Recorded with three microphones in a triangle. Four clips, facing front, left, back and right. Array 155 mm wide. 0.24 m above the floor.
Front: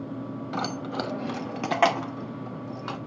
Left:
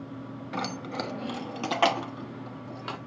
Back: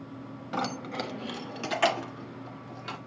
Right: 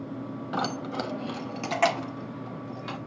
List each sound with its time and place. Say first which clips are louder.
0.5 s keys jangling: right 3 dB, front 1 dB; 85° right, 0.6 m; by 3.0 s 25° left, 1.6 m